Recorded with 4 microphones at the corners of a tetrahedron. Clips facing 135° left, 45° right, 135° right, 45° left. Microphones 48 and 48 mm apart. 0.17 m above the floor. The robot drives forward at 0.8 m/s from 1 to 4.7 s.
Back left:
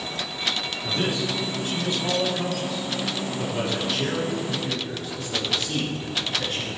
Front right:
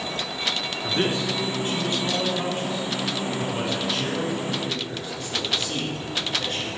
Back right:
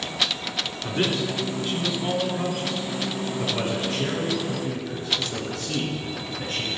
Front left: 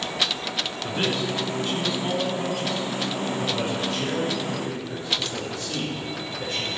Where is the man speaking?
40° right, 2 m; by 6.7 s 150° right, 2.5 m.